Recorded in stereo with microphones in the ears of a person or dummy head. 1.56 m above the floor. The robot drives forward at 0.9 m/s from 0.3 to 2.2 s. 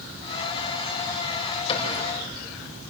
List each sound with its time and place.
1.7 s a cupboard door: 30° left (ahead or behind), 5.5 m